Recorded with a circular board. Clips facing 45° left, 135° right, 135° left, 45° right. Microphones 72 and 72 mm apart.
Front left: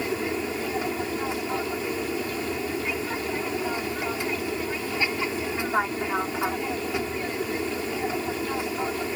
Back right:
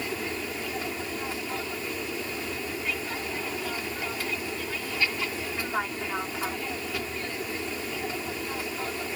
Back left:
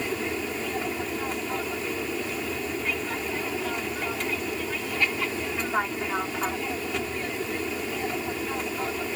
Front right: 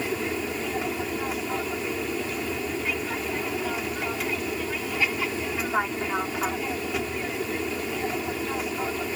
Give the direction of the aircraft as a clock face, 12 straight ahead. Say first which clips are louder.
Front left 5 dB, front right 1 dB; 11 o'clock.